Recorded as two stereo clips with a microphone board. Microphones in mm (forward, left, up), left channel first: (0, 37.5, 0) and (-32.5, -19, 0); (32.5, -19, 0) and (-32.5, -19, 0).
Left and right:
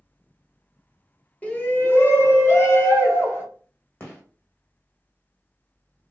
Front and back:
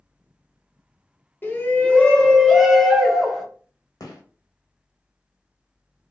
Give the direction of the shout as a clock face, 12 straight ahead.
12 o'clock.